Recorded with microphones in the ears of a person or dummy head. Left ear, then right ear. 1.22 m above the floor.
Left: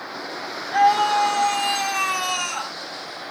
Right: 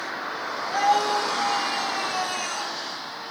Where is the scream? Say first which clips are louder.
Left 5 dB; 25° left (ahead or behind), 1.6 m; by 2.7 s 40° left (ahead or behind), 1.5 m.